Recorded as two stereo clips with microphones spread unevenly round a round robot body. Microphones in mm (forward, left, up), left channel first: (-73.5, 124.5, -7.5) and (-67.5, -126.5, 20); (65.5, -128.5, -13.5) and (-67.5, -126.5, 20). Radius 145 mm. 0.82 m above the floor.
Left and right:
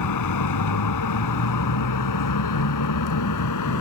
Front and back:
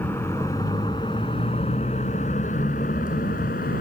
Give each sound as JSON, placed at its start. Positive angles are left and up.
{"t": 0.0, "sound": "a vehicle", "azimuth_deg": 85}